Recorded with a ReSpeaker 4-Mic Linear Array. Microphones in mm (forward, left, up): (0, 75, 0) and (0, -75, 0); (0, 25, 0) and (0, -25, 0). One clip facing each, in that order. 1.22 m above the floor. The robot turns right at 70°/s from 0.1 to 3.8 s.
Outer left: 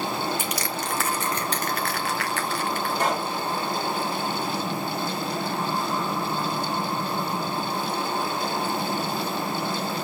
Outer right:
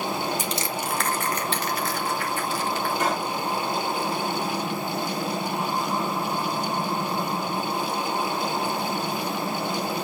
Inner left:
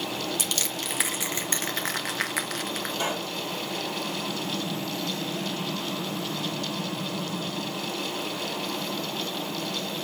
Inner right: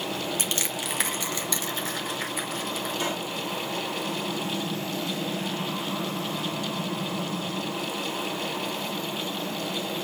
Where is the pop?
35° left (ahead or behind), 5.5 m; by 3.3 s 10° left (ahead or behind), 5.5 m.